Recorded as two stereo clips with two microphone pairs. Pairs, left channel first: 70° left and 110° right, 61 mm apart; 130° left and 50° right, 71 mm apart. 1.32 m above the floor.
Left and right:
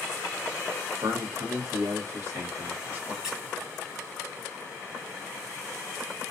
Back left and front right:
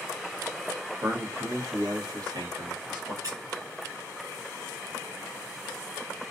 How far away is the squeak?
About 1.3 m.